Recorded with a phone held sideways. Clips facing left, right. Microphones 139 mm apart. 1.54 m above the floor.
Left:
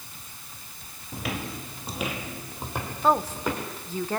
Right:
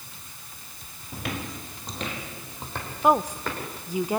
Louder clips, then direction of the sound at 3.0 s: Right 2 dB; 15° right (ahead or behind).